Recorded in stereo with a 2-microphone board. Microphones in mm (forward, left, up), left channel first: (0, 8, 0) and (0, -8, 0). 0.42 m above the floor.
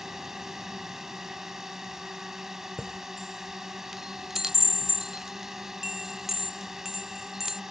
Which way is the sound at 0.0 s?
30° right (ahead or behind).